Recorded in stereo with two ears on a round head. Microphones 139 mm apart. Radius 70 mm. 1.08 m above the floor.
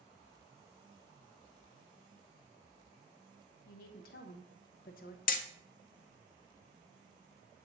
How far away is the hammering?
About 0.5 m.